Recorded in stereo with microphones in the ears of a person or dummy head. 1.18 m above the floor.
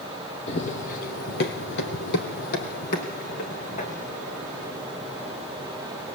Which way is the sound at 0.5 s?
35° left (ahead or behind).